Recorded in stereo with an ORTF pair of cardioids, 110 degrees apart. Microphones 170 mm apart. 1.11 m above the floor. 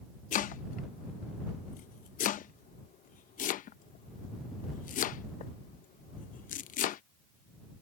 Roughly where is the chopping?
Ahead left.